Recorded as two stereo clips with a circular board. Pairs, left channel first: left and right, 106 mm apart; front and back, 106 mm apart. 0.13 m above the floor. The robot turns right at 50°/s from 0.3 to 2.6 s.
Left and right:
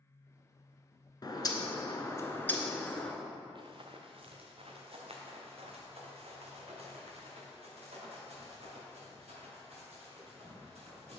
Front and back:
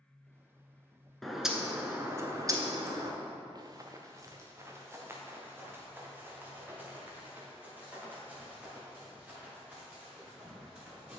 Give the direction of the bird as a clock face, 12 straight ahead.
9 o'clock.